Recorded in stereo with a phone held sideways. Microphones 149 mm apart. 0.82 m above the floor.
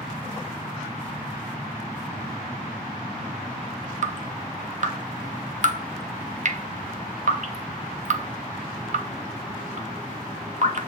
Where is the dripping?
55° right (ahead or behind), 0.9 m.